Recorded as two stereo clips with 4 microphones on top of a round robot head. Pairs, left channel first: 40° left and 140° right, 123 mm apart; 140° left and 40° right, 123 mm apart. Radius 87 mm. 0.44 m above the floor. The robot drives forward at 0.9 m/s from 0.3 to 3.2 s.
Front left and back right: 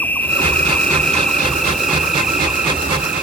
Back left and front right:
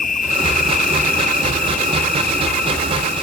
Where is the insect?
115° left; by 3.2 s 140° left.